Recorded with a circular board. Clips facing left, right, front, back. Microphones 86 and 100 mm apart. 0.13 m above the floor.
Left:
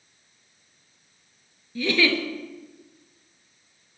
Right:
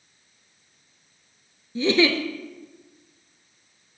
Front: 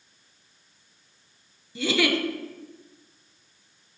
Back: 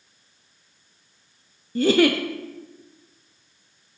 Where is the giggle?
150° right, 0.5 m.